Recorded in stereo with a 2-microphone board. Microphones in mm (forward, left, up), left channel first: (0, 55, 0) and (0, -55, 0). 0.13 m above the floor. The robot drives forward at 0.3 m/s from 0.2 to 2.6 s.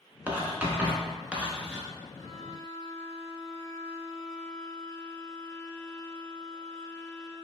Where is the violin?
60° right (ahead or behind), 1.7 m.